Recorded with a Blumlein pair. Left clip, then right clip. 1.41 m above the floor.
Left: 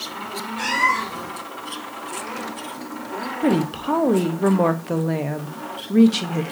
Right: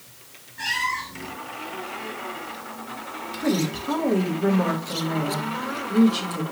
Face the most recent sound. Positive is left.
turn(degrees=25)